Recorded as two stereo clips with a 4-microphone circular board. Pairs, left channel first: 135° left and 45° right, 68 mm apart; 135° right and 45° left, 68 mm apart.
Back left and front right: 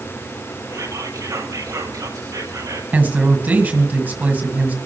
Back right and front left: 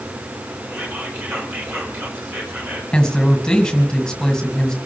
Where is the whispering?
10° right, 4.5 m.